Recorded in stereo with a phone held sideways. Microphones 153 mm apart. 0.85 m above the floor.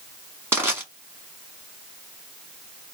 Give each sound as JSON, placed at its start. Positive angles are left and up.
{"t": 0.5, "sound": "crushing", "side_deg": -15, "distance_m": 1.9}